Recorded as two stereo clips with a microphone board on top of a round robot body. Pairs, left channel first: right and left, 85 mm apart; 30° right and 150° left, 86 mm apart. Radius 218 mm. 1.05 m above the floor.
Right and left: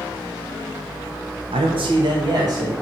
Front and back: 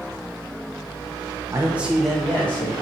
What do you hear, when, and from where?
1.5 s a man speaking: 95° left, 0.6 m; by 2.7 s 40° left, 1.6 m